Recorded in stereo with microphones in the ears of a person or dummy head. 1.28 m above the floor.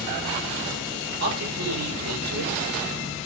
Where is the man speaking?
80° right, 7 m.